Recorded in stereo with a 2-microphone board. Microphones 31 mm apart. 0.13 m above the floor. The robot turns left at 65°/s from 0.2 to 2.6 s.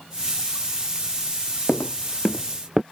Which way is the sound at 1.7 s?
80° left.